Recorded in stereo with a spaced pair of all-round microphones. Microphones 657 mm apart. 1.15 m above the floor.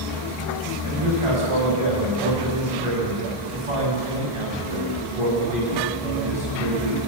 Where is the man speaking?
50° right (ahead or behind), 9.5 m.